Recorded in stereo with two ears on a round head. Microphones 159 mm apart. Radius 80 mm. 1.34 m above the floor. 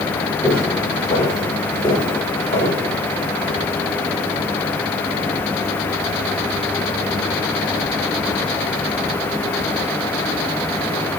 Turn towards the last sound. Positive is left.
turn(degrees=30)  # may be behind; listen again after turning